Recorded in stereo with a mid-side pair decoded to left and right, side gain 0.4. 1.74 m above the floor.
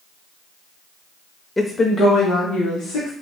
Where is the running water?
No running water in this recording.